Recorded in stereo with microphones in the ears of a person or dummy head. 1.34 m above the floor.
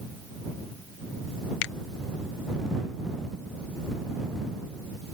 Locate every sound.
1.6 s a finger snap: 50° left (ahead or behind)